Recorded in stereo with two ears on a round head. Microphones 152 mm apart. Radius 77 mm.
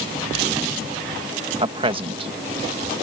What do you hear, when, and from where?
1.6 s a man speaking: 30° right (ahead or behind)